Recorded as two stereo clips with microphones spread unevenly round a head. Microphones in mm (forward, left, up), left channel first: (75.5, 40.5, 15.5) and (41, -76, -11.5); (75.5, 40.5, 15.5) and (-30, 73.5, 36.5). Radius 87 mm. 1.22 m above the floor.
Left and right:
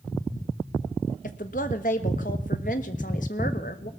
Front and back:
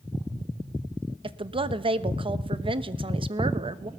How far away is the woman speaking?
About 1.2 m.